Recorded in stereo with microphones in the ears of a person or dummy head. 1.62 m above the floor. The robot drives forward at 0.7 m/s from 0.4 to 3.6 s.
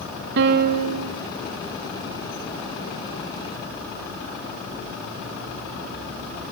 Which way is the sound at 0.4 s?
60° right (ahead or behind).